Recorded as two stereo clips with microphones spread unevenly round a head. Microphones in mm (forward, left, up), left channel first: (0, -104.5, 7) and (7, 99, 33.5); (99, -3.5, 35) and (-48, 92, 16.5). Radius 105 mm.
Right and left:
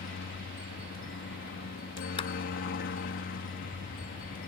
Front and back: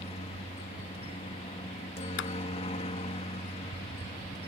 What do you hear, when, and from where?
0.0 s a helicopter: 85° right
2.2 s a clap: 25° right